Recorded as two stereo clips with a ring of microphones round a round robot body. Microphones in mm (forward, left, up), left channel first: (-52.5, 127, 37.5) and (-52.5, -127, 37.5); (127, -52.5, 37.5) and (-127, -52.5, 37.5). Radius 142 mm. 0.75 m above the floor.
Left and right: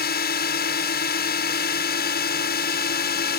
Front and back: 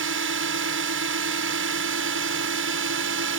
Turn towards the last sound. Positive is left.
turn(degrees=140)